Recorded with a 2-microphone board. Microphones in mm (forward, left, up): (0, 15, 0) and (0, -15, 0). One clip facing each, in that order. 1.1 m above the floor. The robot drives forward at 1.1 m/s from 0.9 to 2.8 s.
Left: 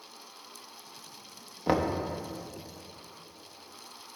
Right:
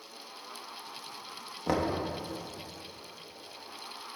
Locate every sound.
1.7 s knocking: 20° left (ahead or behind), 0.6 m; by 2.0 s 10° left (ahead or behind), 1.0 m